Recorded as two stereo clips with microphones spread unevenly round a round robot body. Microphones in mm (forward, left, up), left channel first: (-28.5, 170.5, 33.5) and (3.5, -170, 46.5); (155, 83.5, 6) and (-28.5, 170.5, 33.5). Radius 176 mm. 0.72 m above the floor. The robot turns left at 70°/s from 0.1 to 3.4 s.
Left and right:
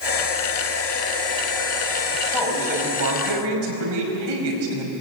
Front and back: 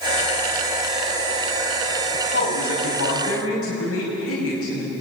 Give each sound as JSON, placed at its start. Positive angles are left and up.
{"t": 2.1, "sound": "a man speaking", "azimuth_deg": 20, "distance_m": 5.5}